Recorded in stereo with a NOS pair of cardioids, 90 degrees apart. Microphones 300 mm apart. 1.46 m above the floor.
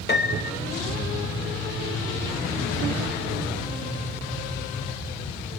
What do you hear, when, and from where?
0.1 s a piano: 35° left, 2.5 m